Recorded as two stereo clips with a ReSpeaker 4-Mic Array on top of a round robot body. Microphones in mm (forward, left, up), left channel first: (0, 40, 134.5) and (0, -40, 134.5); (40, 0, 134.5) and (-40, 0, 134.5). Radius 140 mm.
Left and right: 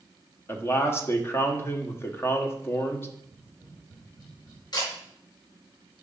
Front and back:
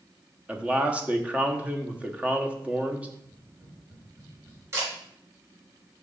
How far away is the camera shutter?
About 4.5 m.